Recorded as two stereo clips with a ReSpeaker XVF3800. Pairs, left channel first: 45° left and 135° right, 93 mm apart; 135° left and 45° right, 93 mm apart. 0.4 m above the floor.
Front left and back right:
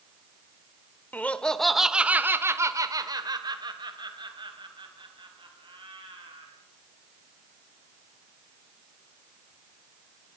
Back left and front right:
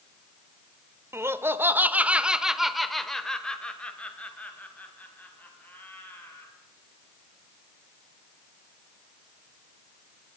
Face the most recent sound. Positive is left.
turn(degrees=-155)